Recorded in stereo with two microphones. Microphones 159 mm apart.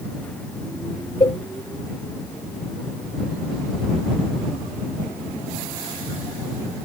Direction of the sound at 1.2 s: 35° left (ahead or behind).